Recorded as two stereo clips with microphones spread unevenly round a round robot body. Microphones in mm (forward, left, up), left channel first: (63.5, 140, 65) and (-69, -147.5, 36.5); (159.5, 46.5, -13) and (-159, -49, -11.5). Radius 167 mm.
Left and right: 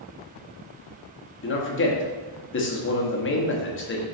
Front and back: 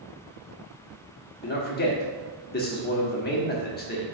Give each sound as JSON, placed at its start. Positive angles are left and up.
{"t": 1.4, "sound": "a man speaking", "azimuth_deg": 50, "distance_m": 1.2}